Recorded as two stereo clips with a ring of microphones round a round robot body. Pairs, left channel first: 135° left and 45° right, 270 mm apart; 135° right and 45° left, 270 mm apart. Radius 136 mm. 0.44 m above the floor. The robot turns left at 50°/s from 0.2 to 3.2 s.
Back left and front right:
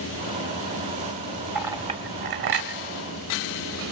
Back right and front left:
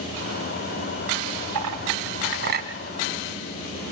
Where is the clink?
40° left, 1.8 m; by 2.7 s 15° right, 1.8 m.